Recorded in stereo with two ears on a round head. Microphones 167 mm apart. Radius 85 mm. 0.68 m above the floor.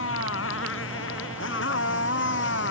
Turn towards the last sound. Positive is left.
turn(degrees=70)  # may be behind; listen again after turning